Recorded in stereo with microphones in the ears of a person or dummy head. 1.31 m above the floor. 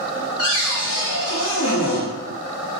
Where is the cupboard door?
65° left (ahead or behind), 1.2 m.